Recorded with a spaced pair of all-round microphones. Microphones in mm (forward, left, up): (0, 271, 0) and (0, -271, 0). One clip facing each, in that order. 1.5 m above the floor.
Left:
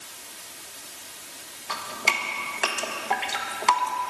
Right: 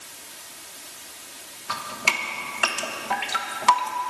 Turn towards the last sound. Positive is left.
turn(degrees=-30)  # may be behind; listen again after turning